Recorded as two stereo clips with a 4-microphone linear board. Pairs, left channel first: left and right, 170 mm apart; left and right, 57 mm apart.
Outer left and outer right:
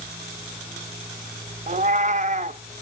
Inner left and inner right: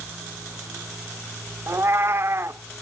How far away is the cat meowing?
About 0.5 m.